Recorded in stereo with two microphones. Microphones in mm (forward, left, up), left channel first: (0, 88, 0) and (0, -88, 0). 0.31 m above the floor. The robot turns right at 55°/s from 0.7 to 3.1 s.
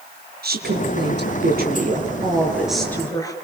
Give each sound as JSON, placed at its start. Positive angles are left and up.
{"t": 0.4, "sound": "a woman speaking", "azimuth_deg": -110, "distance_m": 6.0}